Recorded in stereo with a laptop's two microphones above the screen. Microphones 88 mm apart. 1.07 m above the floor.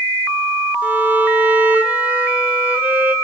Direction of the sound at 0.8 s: 15° right (ahead or behind).